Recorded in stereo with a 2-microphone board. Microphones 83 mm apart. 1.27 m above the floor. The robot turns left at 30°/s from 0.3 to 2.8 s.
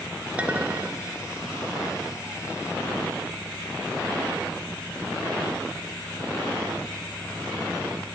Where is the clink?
15° right (ahead or behind), 0.7 m; by 1.0 s 30° right (ahead or behind), 0.7 m.